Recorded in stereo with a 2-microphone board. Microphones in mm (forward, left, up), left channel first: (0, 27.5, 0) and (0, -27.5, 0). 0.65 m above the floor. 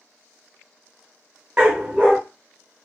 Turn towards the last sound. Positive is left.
turn(degrees=-20)  # may be behind; listen again after turning